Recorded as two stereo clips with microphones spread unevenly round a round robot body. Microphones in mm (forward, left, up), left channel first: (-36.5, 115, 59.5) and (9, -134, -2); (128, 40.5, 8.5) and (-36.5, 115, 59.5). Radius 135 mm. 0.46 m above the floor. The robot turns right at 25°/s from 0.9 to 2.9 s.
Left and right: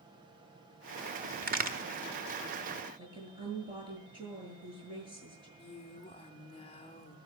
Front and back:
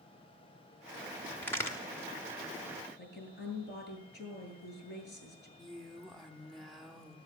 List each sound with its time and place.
1.4 s a crack: 85° right, 1.7 m; by 1.8 s 80° right, 1.7 m
3.0 s a woman speaking: 10° right, 7.5 m
5.6 s a woman speaking: 30° left, 1.1 m